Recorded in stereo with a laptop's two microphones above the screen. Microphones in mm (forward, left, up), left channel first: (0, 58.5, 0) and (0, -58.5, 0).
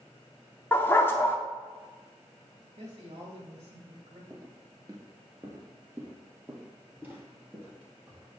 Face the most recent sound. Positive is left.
turn(degrees=-10)  # may be behind; listen again after turning